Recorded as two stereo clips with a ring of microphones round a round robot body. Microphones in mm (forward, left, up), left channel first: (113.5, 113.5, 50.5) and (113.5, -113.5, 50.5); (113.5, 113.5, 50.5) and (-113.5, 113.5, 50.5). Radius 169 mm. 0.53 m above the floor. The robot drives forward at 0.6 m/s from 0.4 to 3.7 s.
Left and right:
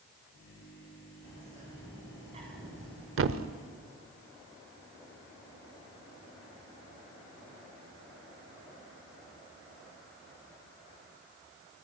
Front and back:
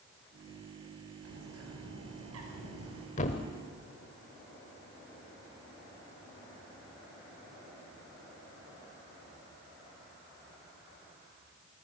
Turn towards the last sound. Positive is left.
turn(degrees=-85)